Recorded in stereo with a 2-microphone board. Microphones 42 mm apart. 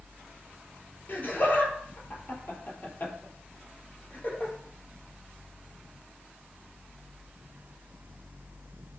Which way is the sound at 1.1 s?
50° left (ahead or behind).